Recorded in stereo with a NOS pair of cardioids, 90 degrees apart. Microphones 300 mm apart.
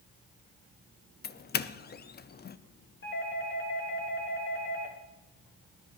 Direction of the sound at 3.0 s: 40° left.